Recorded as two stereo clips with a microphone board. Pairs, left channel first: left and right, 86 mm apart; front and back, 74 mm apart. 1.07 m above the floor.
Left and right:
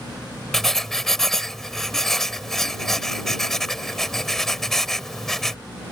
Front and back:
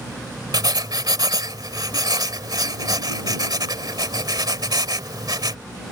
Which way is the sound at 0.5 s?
175° left.